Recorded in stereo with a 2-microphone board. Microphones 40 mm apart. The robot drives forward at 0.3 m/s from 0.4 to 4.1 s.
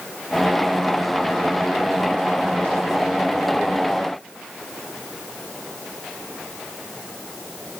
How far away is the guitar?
No guitar in this recording.